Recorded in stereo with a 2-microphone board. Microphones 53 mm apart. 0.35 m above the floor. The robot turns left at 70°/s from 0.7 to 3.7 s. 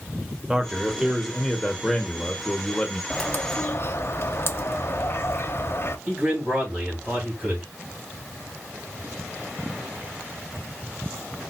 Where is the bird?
160° left, 0.6 m; by 6.0 s 120° left, 0.6 m.